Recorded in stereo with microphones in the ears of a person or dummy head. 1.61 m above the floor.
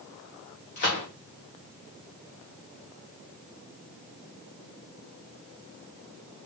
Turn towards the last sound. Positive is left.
turn(degrees=40)  # may be behind; listen again after turning